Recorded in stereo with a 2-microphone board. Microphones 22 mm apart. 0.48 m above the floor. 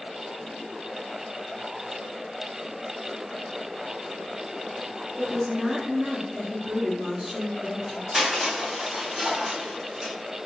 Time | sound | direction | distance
5.2 | a woman speaking | 35° right (ahead or behind) | 1.4 m
8.1 | crushing | 35° right (ahead or behind) | 1.7 m